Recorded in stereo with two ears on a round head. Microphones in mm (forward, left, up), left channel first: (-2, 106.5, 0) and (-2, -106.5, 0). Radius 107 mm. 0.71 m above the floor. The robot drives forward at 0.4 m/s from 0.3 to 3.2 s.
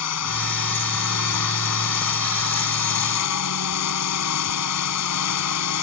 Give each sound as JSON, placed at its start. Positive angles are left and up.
{"t": 0.0, "sound": "a drone", "side_deg": 75}